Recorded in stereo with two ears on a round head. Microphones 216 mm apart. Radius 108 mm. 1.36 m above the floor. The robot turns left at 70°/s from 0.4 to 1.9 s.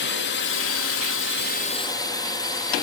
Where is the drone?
125° left; by 2.8 s 20° left.